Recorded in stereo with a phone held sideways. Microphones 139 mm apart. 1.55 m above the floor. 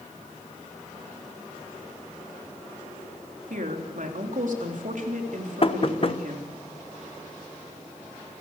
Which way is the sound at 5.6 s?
45° left (ahead or behind).